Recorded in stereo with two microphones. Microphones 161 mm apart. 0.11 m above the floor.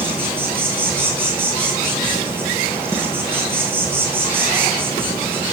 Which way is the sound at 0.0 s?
15° right (ahead or behind).